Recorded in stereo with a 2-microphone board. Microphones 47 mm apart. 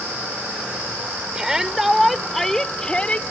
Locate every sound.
1.4 s a shout: 15° right (ahead or behind); by 3.2 s 30° left (ahead or behind)